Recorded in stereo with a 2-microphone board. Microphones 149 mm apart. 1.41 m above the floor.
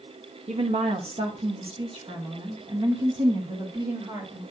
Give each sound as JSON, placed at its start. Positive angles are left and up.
{"t": 0.5, "sound": "a woman speaking", "side_deg": -45, "distance_m": 1.0}